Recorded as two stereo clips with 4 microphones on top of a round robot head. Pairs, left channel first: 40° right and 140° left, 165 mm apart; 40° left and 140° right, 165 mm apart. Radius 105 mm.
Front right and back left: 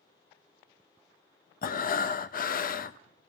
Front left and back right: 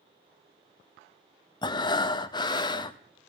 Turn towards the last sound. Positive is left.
turn(degrees=-20)